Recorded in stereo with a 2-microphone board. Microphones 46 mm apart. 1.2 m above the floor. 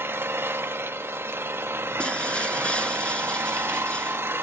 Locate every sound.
0.0 s an engine running: 60° right (ahead or behind), 1.5 m
2.0 s breaking glass: 20° left (ahead or behind), 1.5 m